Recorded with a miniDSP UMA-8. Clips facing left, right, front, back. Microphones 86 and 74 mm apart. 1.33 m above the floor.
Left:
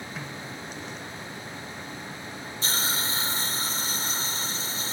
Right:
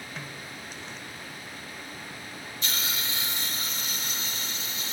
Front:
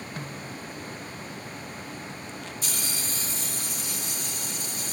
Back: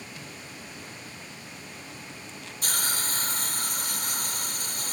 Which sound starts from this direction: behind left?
A hiss, at 2.6 s.